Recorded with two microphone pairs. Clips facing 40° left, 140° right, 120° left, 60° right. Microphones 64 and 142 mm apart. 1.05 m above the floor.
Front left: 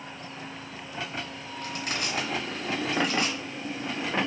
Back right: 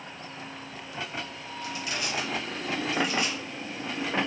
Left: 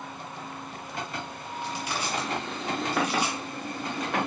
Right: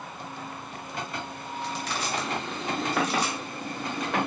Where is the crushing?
50° left, 1.8 m.